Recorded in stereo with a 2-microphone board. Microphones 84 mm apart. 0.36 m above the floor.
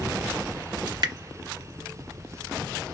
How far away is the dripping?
About 0.7 m.